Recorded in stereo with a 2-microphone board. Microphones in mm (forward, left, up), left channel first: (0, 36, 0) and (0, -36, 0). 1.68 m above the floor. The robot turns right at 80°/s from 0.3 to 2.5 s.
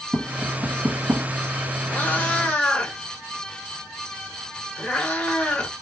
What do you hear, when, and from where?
0.1 s tapping: 10° right (ahead or behind), 1.3 m; by 1.3 s 45° right (ahead or behind), 1.3 m
1.9 s a cat meowing: 20° left (ahead or behind), 1.7 m